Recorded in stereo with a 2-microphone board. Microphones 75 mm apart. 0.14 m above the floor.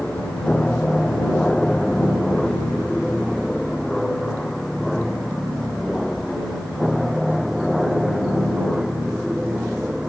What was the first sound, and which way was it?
An aircraft, 15° left (ahead or behind).